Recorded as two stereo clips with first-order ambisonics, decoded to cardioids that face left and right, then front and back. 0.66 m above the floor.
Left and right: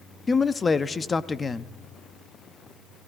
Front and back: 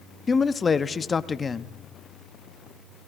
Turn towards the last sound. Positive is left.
turn(degrees=40)